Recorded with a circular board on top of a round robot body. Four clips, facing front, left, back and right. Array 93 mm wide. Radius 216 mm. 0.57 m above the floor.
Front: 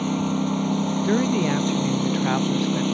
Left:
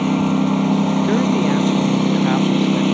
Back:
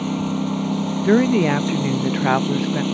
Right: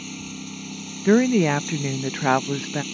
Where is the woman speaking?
140° right.